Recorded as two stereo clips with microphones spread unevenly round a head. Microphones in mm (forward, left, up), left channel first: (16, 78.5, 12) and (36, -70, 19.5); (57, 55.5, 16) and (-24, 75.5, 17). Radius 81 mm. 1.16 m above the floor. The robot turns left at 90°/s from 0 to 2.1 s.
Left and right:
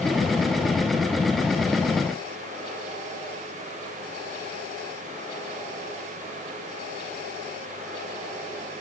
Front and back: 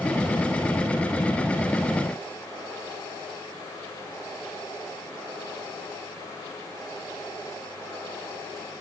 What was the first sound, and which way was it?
Only background noise.